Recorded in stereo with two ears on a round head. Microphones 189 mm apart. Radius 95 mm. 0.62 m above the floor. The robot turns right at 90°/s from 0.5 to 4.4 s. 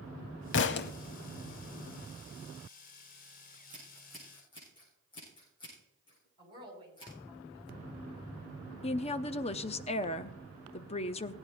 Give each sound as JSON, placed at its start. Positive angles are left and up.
{"t": 0.5, "sound": "a thud", "azimuth_deg": 90, "distance_m": 0.7}
{"t": 3.5, "sound": "scissors", "side_deg": -55, "distance_m": 8.5}
{"t": 6.4, "sound": "a woman speaking", "side_deg": -20, "distance_m": 5.0}
{"t": 8.8, "sound": "a woman speaking", "side_deg": 30, "distance_m": 0.7}